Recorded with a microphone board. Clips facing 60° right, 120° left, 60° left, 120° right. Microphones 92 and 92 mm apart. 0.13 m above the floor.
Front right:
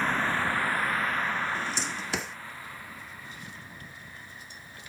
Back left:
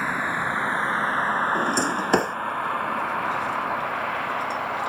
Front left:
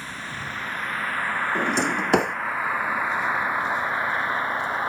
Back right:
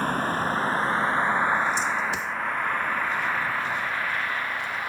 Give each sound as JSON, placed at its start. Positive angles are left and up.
{"t": 0.0, "sound": "a vehicle", "azimuth_deg": -160}
{"t": 1.6, "sound": "a drawer", "azimuth_deg": 85}